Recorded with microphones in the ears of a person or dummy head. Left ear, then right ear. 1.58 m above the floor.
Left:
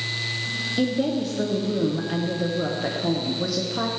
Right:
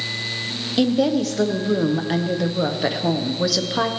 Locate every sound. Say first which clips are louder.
0.8 s a woman speaking: right 8 dB; 40° right (ahead or behind), 1.0 m